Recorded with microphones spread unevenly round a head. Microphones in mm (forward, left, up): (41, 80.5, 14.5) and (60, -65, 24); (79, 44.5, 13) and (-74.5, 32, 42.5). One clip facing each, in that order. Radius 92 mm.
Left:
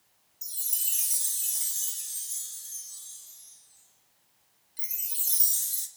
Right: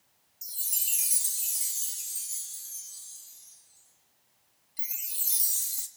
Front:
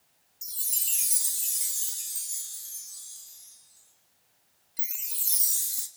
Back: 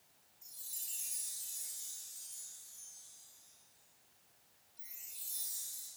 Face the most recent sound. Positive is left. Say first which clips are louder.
# right 1 dB, front 12 dB
turn(degrees=-5)